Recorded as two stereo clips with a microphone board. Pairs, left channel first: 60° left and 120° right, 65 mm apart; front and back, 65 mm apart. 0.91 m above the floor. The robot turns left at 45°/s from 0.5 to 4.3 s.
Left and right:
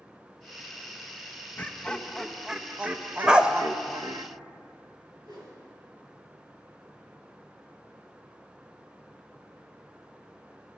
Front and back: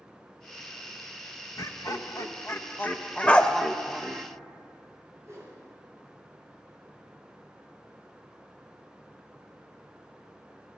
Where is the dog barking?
50° right, 0.7 m; by 3.5 s 65° right, 0.7 m.